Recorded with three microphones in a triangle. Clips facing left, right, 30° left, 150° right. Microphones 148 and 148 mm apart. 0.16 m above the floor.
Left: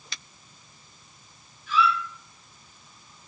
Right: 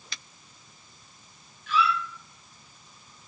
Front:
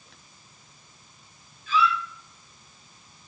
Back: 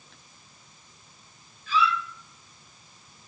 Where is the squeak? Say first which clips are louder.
Left 1 dB, front 1 dB; 100° right, 2.5 m.